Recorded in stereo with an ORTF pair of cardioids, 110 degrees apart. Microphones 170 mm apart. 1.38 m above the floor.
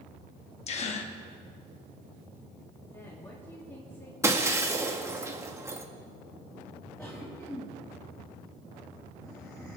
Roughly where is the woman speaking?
Ahead.